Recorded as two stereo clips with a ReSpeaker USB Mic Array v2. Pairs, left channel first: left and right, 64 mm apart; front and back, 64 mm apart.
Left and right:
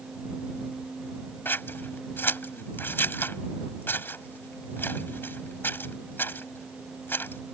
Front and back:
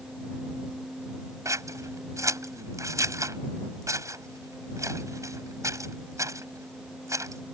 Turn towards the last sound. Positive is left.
turn(degrees=145)